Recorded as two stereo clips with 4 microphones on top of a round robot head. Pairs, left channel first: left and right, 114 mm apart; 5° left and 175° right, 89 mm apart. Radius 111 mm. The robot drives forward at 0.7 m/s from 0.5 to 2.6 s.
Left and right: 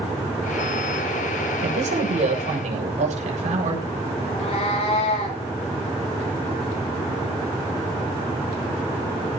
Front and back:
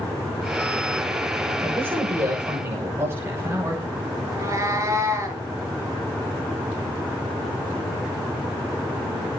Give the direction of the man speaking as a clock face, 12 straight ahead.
3 o'clock.